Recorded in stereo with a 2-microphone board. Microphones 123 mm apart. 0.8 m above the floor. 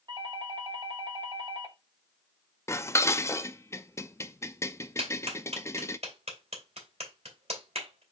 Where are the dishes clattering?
25° left (ahead or behind), 0.5 m.